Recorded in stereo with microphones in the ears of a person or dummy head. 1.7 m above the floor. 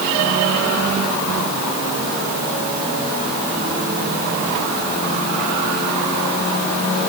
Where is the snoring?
No snoring in this recording.